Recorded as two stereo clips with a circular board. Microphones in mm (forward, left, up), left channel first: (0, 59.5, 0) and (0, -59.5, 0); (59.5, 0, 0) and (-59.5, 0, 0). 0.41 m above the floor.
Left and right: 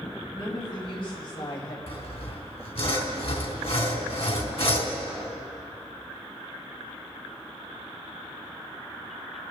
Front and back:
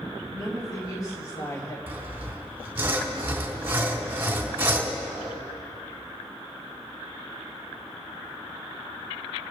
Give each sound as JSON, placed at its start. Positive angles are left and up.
{"t": 0.3, "sound": "a woman speaking", "azimuth_deg": 50, "distance_m": 4.0}
{"t": 1.9, "sound": "sawing", "azimuth_deg": 115, "distance_m": 2.5}